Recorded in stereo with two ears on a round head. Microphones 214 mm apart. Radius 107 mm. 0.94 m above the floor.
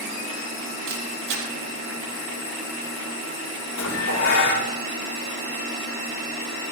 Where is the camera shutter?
60° right (ahead or behind), 6.5 m.